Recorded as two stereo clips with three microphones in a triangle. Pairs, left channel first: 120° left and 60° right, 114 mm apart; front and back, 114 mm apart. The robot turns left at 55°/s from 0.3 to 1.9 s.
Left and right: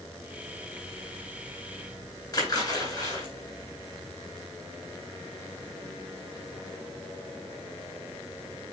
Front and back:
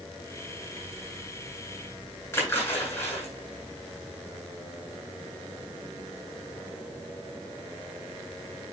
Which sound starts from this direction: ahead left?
A splash, at 2.3 s.